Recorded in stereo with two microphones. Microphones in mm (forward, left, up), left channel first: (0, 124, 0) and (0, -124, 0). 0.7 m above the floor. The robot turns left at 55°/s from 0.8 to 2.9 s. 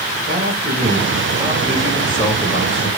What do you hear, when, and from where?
0.3 s a man speaking: 125° right, 3 m; by 2.9 s 120° left, 3 m